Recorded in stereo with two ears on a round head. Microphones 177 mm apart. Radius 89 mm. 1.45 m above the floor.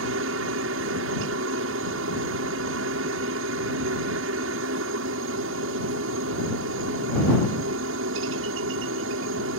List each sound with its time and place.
0.0 s a helicopter: 70° right (ahead or behind)